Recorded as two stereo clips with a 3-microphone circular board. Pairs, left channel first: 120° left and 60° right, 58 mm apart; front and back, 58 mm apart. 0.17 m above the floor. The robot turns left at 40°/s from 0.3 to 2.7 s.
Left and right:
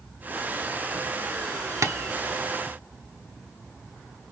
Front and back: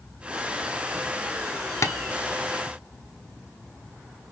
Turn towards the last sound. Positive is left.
turn(degrees=-65)